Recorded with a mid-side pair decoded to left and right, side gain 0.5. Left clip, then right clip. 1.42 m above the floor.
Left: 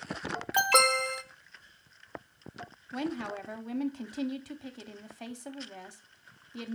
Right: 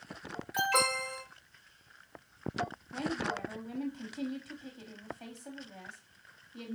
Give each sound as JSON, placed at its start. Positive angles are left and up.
{"t": 0.5, "sound": "an alarm", "azimuth_deg": 65, "distance_m": 0.6}
{"t": 2.9, "sound": "a woman speaking", "azimuth_deg": 50, "distance_m": 0.8}